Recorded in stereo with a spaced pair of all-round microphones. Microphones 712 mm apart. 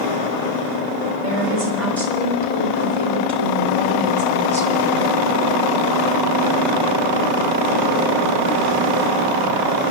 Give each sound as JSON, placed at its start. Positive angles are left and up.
{"t": 1.2, "sound": "a woman speaking", "side_deg": -50, "distance_m": 6.5}